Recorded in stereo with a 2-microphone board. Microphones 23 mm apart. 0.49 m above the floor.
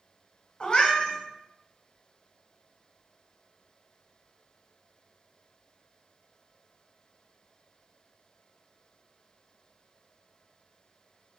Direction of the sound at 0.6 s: 45° left (ahead or behind).